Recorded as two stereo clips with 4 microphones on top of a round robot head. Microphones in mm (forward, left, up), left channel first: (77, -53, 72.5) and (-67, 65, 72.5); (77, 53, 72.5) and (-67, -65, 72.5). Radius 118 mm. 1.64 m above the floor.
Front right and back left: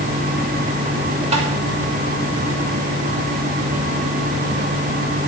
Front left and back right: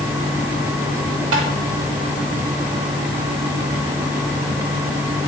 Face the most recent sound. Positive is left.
turn(degrees=-160)